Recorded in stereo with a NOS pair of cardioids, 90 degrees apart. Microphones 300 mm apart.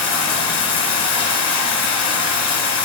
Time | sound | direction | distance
0.0 | running water | 55° left | 0.9 m